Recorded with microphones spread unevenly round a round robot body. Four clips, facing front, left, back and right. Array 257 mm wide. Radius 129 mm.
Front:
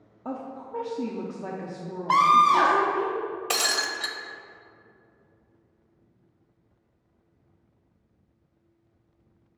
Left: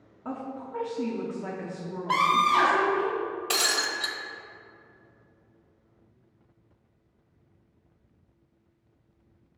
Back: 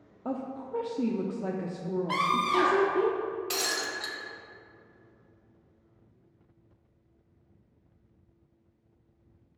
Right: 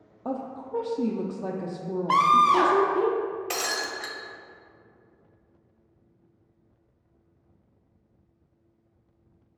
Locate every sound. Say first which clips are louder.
0.2 s a woman speaking: right 3 dB, back 1 dB; 120° right, 0.6 m
2.1 s a scream: right 3 dB, front 10 dB; 25° right, 0.7 m
3.5 s breaking glass: left 1 dB, front 4 dB; straight ahead, 1.0 m